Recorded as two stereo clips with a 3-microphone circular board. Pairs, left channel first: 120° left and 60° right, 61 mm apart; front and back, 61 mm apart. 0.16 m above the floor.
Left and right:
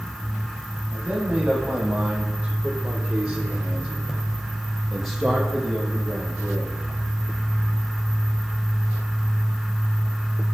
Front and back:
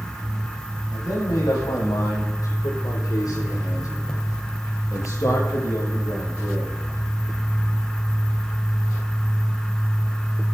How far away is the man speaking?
About 8 m.